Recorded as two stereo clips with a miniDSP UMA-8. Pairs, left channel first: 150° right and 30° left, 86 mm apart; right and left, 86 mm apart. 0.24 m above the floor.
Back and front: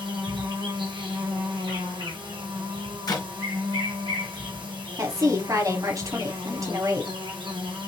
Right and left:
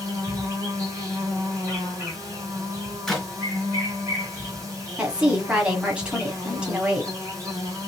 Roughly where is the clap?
Behind.